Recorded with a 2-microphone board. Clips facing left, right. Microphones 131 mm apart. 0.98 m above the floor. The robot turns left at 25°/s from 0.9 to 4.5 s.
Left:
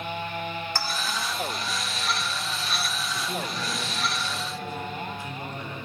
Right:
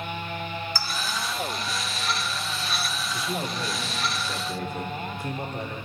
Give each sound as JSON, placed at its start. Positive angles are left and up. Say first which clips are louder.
{"t": 0.8, "sound": "a clink", "louder": "left 1 dB", "side_deg": 60, "distance_m": 1.5}
{"t": 3.1, "sound": "a man speaking", "louder": "right 3 dB", "azimuth_deg": -20, "distance_m": 2.5}